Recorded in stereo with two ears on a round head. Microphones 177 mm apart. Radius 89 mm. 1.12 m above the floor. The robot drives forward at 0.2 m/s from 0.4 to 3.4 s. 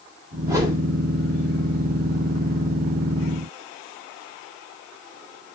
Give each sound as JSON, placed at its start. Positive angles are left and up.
{"t": 0.5, "sound": "a whoosh", "side_deg": -15, "distance_m": 6.5}